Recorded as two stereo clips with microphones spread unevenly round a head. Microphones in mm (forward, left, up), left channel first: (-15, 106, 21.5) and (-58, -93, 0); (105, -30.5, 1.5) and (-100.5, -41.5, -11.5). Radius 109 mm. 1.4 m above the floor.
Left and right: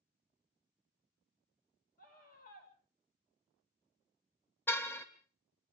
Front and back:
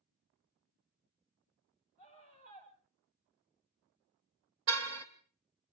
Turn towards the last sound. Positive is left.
turn(degrees=155)